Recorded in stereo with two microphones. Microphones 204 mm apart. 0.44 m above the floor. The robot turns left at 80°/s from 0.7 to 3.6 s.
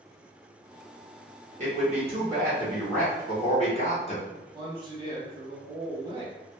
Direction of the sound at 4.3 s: 25° right (ahead or behind).